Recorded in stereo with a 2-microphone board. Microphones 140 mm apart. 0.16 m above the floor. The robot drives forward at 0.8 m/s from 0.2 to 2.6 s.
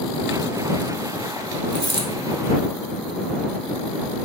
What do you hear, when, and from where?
1.7 s a dropped coin: 40° right (ahead or behind), 0.8 m; by 2.1 s 35° right (ahead or behind), 0.9 m